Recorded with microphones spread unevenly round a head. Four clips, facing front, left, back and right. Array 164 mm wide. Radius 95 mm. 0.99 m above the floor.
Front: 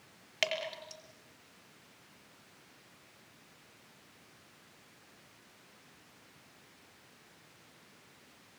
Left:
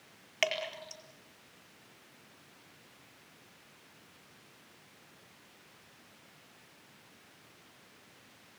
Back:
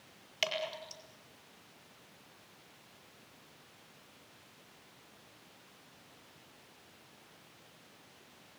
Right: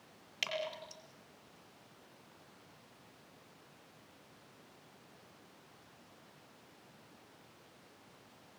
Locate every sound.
0.4 s dripping: 45° left, 5 m